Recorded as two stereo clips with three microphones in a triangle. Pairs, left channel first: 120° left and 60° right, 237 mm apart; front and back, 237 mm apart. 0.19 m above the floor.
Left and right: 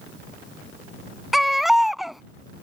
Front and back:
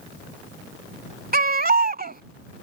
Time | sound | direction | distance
1.3 | a baby crying | 150° right | ?